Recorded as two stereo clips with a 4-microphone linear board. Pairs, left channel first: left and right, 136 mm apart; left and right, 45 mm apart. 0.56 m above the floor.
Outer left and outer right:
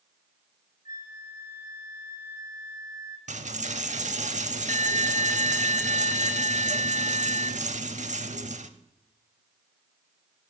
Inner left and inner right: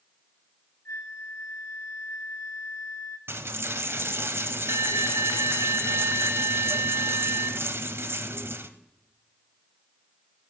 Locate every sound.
0.8 s a flute: 80° left, 1.0 m
3.3 s a dropped coin: 60° right (ahead or behind), 0.6 m